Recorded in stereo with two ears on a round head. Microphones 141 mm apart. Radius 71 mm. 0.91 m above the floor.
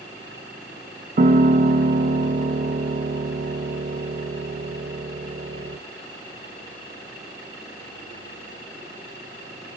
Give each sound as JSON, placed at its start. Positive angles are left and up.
{"t": 1.2, "sound": "a piano", "side_deg": -45, "distance_m": 0.6}